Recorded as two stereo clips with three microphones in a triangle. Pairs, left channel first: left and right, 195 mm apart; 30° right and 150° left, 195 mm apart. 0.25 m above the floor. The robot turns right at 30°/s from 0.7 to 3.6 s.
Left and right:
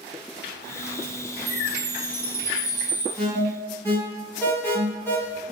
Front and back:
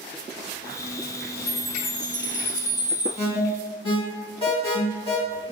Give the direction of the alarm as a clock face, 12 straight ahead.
12 o'clock.